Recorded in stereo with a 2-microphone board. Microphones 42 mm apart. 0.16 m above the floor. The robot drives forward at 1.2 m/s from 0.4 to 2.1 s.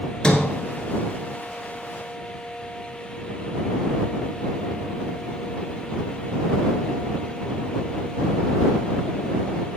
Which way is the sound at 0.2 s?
20° left (ahead or behind).